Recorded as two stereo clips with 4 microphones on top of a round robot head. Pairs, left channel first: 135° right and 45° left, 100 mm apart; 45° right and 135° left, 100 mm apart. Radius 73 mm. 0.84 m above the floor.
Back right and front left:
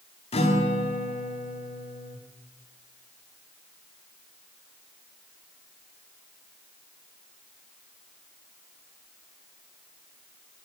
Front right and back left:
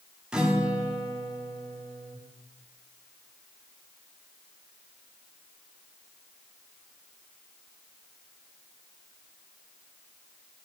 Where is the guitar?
145° right, 1.9 m.